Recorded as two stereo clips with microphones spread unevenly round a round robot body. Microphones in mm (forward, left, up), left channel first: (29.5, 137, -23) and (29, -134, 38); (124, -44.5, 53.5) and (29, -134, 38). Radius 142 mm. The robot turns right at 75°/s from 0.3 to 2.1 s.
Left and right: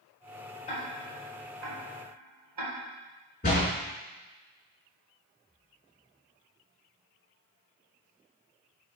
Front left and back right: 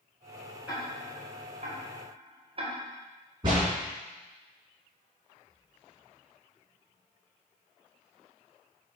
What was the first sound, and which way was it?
Ticking, 145° left.